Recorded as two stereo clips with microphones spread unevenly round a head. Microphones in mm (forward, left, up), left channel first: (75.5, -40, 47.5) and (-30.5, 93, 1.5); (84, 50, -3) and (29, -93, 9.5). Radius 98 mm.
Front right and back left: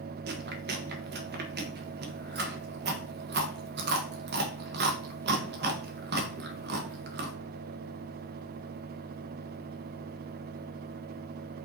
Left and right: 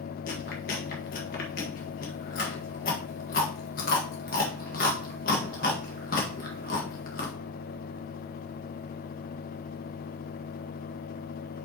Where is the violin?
I don't hear a violin.